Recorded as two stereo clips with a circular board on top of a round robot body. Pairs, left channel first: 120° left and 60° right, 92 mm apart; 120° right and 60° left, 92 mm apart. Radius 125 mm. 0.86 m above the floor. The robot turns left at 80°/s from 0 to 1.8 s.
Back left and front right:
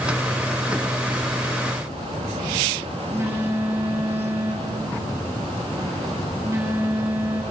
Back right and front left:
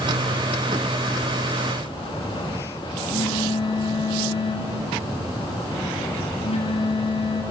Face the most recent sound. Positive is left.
turn(degrees=-125)